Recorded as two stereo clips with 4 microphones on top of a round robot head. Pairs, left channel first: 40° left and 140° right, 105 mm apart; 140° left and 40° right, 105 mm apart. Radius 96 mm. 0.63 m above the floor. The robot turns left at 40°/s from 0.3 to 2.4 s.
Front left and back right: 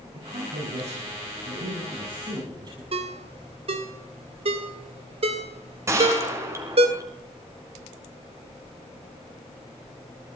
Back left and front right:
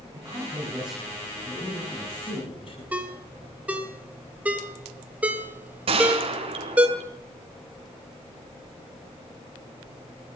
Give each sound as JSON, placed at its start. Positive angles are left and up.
{"t": 0.1, "sound": "a woman speaking", "azimuth_deg": -100, "distance_m": 7.5}
{"t": 2.9, "sound": "a ringtone", "azimuth_deg": -120, "distance_m": 2.5}
{"t": 5.9, "sound": "a gunshot", "azimuth_deg": -75, "distance_m": 3.0}